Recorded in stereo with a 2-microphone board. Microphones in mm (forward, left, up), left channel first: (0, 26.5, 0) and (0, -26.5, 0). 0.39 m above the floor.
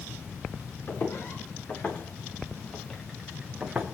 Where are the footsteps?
40° left (ahead or behind), 5 m; by 3.9 s 20° right (ahead or behind), 2.5 m.